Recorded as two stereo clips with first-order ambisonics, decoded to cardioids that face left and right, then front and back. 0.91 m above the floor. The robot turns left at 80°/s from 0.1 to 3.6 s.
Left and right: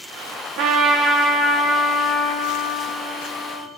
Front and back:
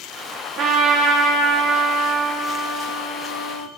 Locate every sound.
0.6 s a trumpet: 125° right, 0.5 m; by 3.7 s 5° right, 0.5 m